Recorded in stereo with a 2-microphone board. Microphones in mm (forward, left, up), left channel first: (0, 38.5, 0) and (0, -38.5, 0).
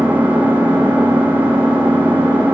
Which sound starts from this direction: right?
An engine running, at 0.0 s.